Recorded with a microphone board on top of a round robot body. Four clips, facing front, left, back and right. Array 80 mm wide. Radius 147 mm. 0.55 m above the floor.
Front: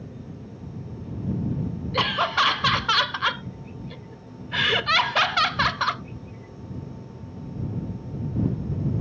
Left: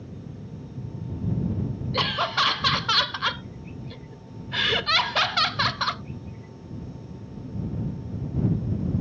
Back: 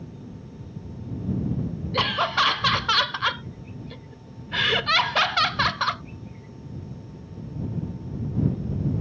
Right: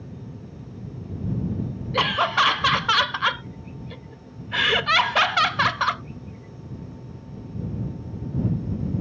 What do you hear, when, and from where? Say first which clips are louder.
1.9 s laughter: right 5 dB, even; 80° right